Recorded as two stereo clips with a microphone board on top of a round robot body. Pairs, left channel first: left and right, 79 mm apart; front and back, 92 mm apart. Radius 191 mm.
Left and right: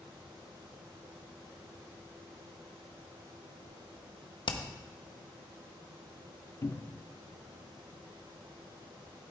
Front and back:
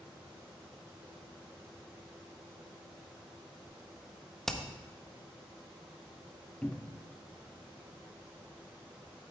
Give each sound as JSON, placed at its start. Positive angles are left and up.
{"t": 4.5, "sound": "hammering", "azimuth_deg": 85, "distance_m": 0.9}
{"t": 6.6, "sound": "a cupboard door", "azimuth_deg": 70, "distance_m": 0.8}